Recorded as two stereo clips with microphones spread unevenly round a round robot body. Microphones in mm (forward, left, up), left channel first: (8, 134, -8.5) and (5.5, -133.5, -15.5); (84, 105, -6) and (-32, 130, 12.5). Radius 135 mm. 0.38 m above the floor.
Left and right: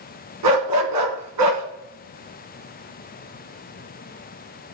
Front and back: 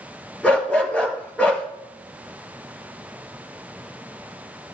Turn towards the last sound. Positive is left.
turn(degrees=-100)